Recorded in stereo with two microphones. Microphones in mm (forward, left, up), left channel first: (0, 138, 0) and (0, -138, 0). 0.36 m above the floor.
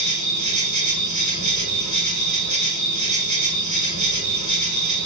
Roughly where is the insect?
Right.